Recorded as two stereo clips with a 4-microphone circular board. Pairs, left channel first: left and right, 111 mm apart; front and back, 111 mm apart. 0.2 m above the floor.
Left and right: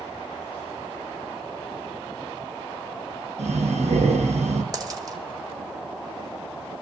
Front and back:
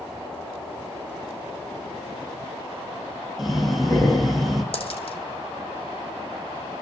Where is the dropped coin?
35° right, 1.6 m.